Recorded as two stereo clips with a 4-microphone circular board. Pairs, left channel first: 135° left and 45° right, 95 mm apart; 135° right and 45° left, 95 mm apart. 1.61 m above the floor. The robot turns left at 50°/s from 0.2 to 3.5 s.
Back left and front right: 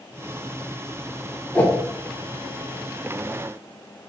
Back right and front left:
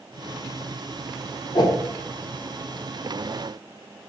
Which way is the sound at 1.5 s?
150° right.